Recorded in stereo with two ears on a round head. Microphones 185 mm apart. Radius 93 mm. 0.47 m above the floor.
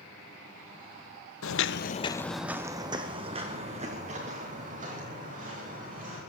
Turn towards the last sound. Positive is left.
turn(degrees=-40)  # may be behind; listen again after turning